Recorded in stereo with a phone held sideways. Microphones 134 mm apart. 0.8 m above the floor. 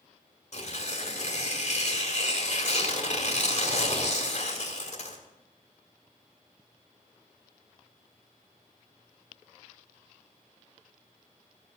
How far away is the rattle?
No rattle in this recording.